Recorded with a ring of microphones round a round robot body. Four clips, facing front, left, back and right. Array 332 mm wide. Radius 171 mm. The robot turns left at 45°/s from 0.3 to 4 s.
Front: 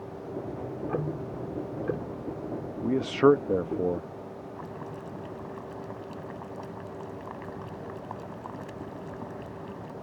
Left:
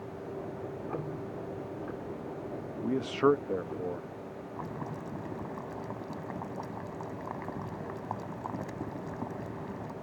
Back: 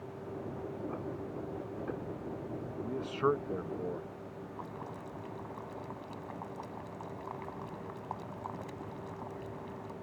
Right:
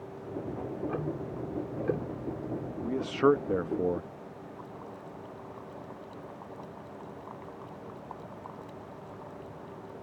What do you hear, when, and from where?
0.6 s ticking: 5° left; by 2.7 s 90° right
2.8 s a man speaking: 15° left; by 4.1 s 40° right
4.6 s boiling: 75° left